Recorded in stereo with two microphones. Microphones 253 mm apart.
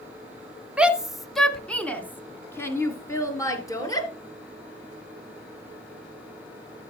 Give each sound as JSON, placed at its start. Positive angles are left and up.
{"t": 0.8, "sound": "a shout", "side_deg": -5, "distance_m": 1.1}